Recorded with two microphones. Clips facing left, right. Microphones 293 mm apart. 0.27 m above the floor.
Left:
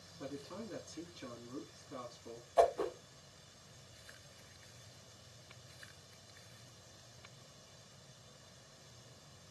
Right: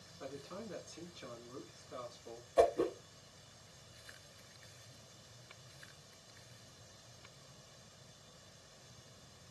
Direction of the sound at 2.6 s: 35° right (ahead or behind).